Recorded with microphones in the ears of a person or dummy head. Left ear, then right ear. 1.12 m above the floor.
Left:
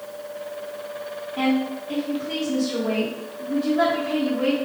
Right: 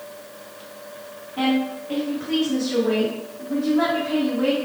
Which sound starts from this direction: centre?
A woman speaking, at 1.4 s.